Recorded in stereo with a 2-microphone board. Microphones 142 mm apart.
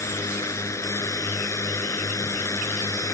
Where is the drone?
20° left (ahead or behind).